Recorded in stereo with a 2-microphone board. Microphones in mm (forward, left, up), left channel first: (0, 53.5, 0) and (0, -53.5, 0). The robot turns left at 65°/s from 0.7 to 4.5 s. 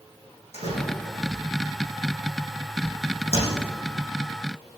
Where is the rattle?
I don't hear a rattle.